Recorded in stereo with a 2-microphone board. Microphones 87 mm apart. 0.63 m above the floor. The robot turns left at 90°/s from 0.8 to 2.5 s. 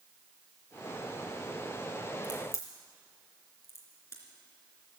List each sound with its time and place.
2.2 s a crack: 55° left (ahead or behind), 3 m; by 4.2 s 30° left (ahead or behind), 3 m